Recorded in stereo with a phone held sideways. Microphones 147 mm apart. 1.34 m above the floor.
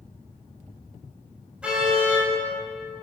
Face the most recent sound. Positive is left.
turn(degrees=-5)  # may be behind; listen again after turning